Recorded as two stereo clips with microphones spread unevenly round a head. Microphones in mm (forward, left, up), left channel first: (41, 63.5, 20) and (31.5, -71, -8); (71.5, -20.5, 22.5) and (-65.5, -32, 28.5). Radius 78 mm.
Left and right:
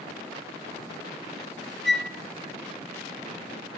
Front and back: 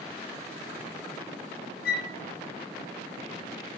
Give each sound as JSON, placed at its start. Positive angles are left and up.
{"t": 1.9, "sound": "a flute", "azimuth_deg": 0, "distance_m": 0.7}